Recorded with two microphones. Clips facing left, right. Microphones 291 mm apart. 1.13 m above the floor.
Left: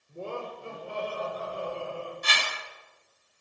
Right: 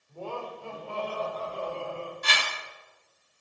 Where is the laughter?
25° left (ahead or behind), 4.5 m; by 2.1 s 10° left (ahead or behind), 6 m.